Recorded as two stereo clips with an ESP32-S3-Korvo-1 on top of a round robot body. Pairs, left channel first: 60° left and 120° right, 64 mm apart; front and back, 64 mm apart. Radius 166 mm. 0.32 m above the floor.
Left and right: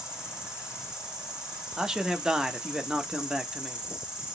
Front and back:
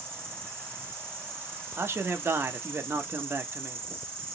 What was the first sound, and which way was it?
An insect, 175° left.